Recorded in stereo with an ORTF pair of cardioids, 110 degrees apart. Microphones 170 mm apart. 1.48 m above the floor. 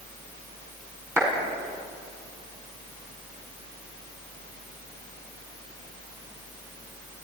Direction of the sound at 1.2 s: 15° right.